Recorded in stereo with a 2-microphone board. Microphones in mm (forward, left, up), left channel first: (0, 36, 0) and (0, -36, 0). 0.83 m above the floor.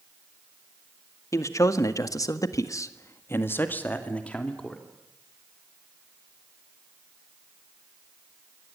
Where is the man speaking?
45° left (ahead or behind), 2 m; by 4.8 s 10° left (ahead or behind), 3 m.